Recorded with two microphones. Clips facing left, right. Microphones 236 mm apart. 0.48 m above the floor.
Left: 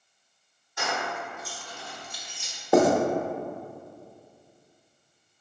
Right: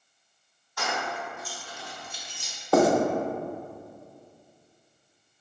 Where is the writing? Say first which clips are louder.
Left 1 dB; 15° left (ahead or behind), 0.6 m.